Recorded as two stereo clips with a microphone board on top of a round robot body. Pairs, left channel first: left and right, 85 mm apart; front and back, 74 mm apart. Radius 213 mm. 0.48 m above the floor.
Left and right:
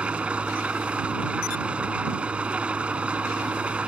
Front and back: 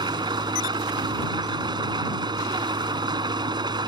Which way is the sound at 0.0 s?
165° right.